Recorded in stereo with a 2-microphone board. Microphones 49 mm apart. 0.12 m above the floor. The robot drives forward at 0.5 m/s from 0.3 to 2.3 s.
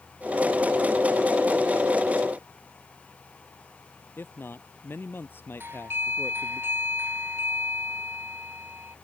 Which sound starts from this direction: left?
A man speaking, at 4.2 s.